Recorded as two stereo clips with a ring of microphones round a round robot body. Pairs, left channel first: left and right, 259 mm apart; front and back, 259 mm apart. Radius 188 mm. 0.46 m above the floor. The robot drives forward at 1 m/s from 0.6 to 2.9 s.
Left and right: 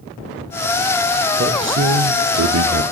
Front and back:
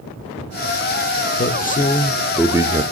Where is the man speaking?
45° right, 1.6 m; by 2.8 s 115° right, 1.3 m.